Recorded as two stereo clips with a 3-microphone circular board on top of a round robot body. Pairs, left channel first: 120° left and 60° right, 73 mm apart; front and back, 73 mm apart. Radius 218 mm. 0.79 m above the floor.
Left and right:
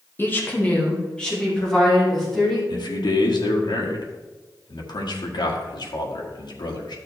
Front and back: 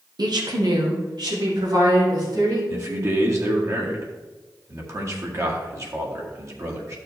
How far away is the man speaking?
About 1.9 m.